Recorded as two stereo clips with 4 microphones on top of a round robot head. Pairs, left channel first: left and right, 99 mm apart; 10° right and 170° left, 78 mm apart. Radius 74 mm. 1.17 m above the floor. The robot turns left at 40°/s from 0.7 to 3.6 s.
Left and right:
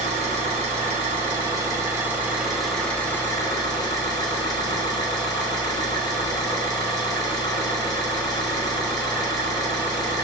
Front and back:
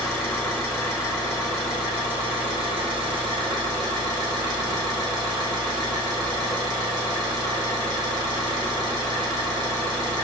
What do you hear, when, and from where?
0.0 s an engine running: 100° right, 1.8 m; by 10.2 s 145° left, 1.8 m